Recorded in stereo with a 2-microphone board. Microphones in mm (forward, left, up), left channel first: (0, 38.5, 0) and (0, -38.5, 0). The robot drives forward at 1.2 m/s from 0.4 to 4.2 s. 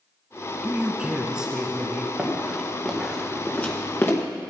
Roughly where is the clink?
No clink in this recording.